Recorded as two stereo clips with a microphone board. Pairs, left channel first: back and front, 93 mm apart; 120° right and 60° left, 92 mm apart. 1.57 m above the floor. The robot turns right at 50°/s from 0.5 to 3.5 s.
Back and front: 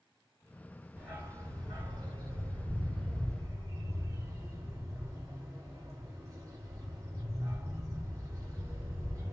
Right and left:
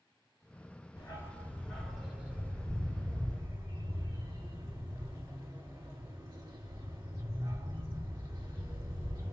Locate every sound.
1.0 s a dog barking: 80° right, 2.5 m; by 9.3 s 50° left, 2.5 m